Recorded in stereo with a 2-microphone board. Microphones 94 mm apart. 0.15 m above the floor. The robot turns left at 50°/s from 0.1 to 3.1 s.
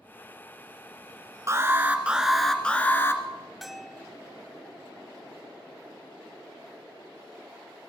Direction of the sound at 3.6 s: Centre (ahead or behind).